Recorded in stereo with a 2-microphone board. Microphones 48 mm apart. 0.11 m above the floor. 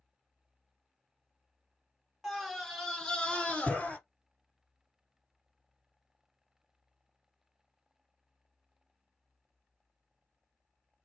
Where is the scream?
5° right (ahead or behind), 1.6 m; by 4.0 s 30° left (ahead or behind), 1.7 m.